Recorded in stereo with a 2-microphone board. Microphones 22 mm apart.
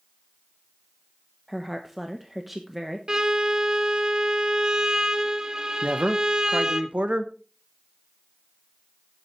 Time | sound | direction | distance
1.5 | a woman speaking | 5° right (ahead or behind) | 1.0 m
3.1 | a violin | 30° right (ahead or behind) | 0.9 m
5.8 | a man speaking | 65° right (ahead or behind) | 1.1 m